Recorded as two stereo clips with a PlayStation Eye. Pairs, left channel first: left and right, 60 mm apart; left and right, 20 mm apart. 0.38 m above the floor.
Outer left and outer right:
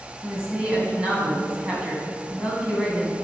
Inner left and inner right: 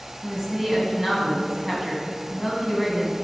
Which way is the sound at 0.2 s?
20° right (ahead or behind).